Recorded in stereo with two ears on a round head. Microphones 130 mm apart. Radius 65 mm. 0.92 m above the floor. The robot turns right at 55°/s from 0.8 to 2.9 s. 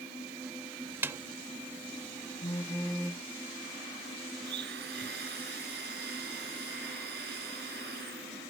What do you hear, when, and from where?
1.0 s a snare drum: 15° right (ahead or behind); by 1.2 s 25° right (ahead or behind)
2.4 s a phone buzzing: 30° left (ahead or behind); by 3.3 s 5° left (ahead or behind)
4.4 s a blender: 80° right